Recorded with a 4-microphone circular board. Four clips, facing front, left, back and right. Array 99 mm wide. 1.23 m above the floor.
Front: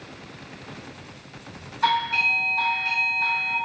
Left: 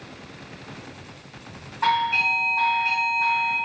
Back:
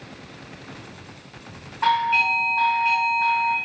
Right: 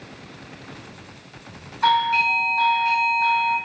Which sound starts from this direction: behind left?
A doorbell, at 1.8 s.